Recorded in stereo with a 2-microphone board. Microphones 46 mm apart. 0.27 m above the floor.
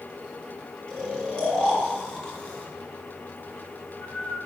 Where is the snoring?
20° left (ahead or behind), 2.5 m.